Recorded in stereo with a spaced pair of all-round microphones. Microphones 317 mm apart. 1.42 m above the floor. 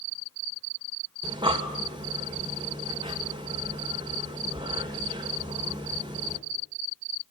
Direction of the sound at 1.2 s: 15° right (ahead or behind).